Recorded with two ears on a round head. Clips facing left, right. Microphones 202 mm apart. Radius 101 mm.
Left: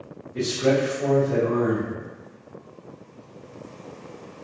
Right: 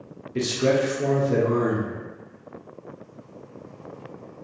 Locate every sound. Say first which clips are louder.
0.3 s a man speaking: even; 35° right (ahead or behind), 0.7 m